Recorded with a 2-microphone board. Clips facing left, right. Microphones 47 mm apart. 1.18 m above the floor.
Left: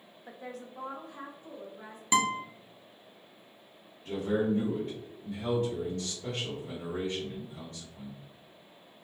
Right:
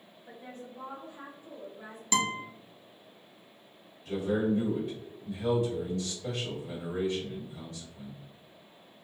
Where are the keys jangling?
No keys jangling in this recording.